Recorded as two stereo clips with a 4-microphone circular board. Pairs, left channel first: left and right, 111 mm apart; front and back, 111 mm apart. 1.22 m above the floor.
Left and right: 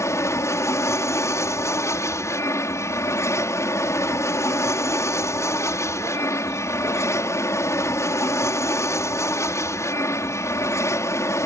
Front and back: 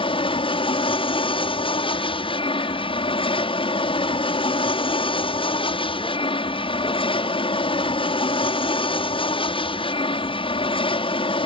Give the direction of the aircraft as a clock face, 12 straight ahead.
11 o'clock.